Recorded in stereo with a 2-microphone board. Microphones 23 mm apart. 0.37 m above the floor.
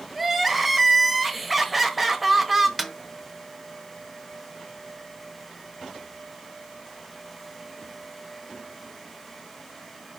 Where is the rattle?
I don't hear a rattle.